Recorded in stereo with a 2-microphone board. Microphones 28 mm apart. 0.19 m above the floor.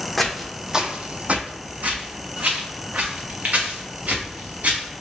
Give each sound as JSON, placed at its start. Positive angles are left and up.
{"t": 0.2, "sound": "footsteps", "side_deg": 5, "distance_m": 0.7}